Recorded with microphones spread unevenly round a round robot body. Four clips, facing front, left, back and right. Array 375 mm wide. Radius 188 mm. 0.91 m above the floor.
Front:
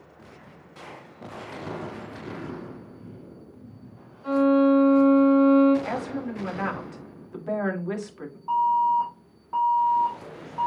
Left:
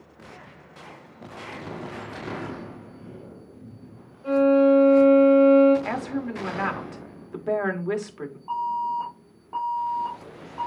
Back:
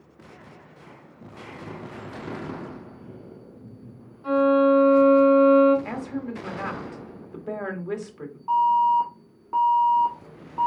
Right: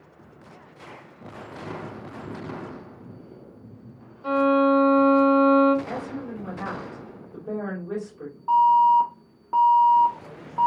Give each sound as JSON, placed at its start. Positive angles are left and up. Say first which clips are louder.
{"t": 4.2, "sound": "a violin", "louder": "left 2 dB, back 1 dB", "azimuth_deg": -100, "distance_m": 2.5}
{"t": 5.8, "sound": "a woman speaking", "louder": "left 4 dB, front 1 dB", "azimuth_deg": 85, "distance_m": 1.9}
{"t": 8.5, "sound": "an alarm", "louder": "right 11 dB, back 2 dB", "azimuth_deg": -120, "distance_m": 1.7}